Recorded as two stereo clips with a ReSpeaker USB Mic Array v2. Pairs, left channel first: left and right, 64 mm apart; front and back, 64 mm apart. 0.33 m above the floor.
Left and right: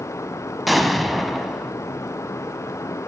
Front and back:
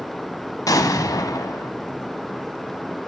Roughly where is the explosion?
Ahead.